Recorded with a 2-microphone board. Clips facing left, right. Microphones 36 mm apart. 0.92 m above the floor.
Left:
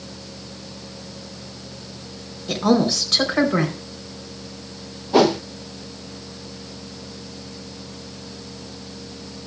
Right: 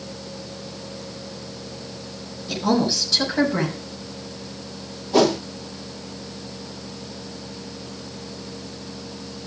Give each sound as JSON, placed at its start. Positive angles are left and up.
{"t": 2.5, "sound": "a woman speaking", "side_deg": 70, "distance_m": 4.5}
{"t": 5.1, "sound": "a whoosh", "side_deg": 20, "distance_m": 0.9}